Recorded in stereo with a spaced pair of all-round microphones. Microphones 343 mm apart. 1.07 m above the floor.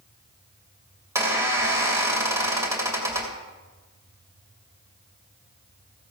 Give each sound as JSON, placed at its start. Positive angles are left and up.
{"t": 1.1, "sound": "a squeak", "side_deg": -10, "distance_m": 3.0}